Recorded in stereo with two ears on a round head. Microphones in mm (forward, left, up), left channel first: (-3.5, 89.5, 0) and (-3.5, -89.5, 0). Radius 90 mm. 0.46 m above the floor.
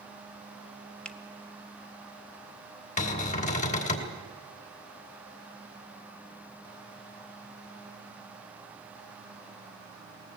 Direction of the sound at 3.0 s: 40° left (ahead or behind).